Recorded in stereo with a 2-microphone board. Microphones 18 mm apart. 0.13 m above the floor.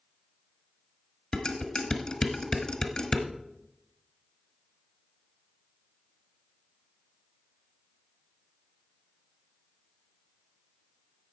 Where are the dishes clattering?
40° left (ahead or behind), 1.4 m.